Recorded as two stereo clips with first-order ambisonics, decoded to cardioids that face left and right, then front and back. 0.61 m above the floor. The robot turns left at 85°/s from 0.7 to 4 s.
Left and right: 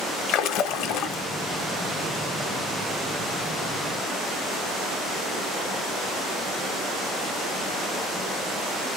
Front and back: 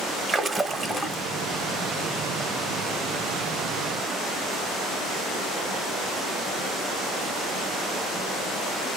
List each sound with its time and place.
0.3 s a splash: 100° left, 0.5 m; by 1.2 s 55° left, 0.5 m